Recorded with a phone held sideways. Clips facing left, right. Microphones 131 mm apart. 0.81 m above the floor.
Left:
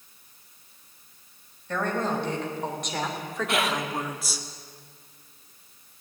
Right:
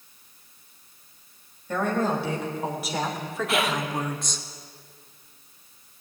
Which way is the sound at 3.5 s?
Centre (ahead or behind).